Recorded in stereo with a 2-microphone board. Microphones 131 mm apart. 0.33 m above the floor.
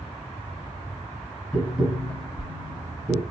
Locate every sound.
1.5 s tapping: 5° right (ahead or behind), 0.8 m